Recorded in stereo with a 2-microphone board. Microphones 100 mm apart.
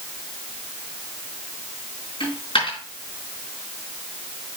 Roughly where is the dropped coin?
Left.